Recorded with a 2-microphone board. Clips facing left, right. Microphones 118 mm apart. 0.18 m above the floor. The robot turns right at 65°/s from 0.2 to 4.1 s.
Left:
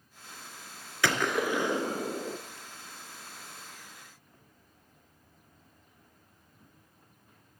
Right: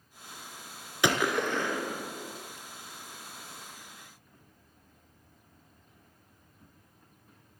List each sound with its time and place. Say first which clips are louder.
1.0 s a gunshot: right 1 dB; 20° right, 1.4 m; by 2.4 s 65° left, 1.4 m